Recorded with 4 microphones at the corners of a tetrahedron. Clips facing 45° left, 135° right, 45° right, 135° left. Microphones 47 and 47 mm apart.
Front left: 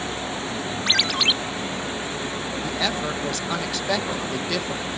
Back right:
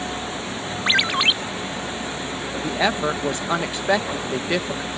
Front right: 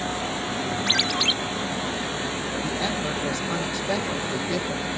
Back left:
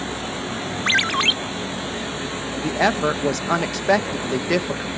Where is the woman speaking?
160° left.